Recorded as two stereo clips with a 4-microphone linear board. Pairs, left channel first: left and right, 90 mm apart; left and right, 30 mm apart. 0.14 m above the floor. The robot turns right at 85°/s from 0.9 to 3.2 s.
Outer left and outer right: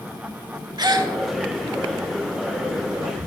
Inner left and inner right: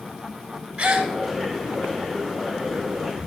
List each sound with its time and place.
0.8 s a gasp: 50° right (ahead or behind), 0.8 m; by 1.1 s 45° right (ahead or behind), 0.8 m